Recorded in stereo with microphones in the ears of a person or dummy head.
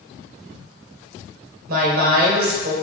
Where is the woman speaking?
55° right (ahead or behind), 1.4 m.